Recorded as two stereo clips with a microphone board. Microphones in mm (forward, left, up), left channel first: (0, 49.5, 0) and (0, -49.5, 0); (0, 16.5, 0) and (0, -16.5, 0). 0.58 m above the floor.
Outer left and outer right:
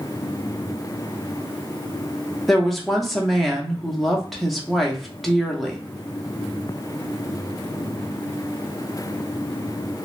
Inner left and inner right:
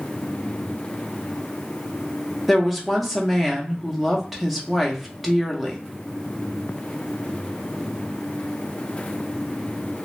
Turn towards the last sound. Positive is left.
turn(degrees=0)  # may be behind; listen again after turning